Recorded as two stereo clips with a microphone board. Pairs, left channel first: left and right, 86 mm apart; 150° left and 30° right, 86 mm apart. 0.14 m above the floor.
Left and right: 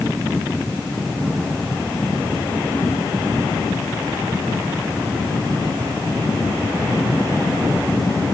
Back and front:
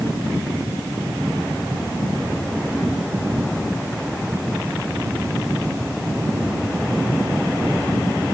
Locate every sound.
Only background noise.